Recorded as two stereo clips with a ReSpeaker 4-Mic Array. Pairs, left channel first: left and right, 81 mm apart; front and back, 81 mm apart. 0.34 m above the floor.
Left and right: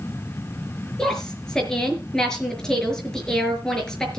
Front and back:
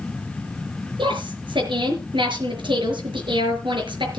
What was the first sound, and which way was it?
A woman speaking, 175° left.